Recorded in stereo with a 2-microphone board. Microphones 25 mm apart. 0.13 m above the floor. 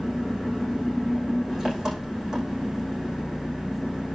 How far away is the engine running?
About 6 m.